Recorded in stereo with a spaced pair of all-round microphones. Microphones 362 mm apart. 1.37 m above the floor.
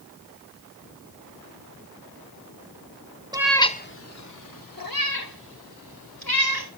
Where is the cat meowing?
10° right (ahead or behind), 0.6 m; by 6.7 s 70° left (ahead or behind), 2.5 m.